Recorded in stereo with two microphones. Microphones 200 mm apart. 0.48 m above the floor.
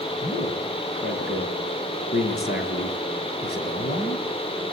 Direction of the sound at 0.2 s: 60° left (ahead or behind).